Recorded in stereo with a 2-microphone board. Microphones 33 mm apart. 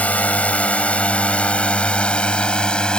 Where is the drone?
45° left (ahead or behind); by 3.0 s 25° left (ahead or behind).